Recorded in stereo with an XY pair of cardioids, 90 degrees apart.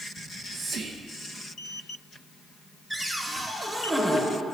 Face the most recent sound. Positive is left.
turn(degrees=-20)